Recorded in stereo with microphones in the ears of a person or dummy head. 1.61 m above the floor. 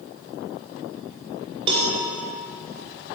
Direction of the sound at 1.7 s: 35° right (ahead or behind).